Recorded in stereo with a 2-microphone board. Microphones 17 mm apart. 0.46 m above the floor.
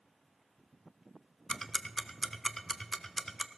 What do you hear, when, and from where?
1.5 s ticking: 25° left (ahead or behind), 0.9 m